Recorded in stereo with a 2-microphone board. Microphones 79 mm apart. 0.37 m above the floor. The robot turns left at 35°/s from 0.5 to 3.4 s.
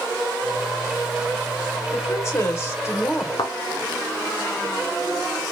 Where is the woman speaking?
95° left, 1.3 m; by 3.3 s 50° left, 1.3 m.